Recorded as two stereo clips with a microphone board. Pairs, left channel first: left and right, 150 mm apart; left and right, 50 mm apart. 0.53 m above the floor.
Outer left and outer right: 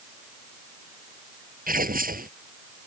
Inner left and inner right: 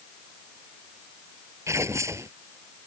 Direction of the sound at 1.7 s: 75° right (ahead or behind).